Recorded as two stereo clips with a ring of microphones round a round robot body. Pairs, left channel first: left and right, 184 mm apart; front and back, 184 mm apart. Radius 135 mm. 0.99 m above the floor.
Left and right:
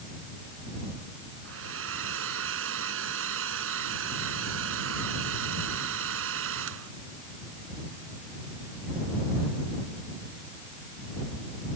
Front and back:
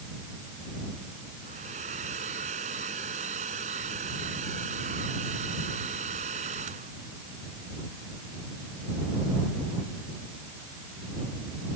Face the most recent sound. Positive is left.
turn(degrees=-115)